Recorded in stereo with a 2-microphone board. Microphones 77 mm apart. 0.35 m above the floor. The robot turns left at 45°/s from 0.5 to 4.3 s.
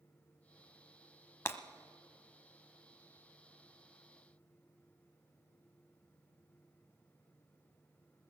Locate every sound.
1.4 s breaking glass: 35° left (ahead or behind), 0.9 m; by 1.6 s 30° left (ahead or behind), 0.9 m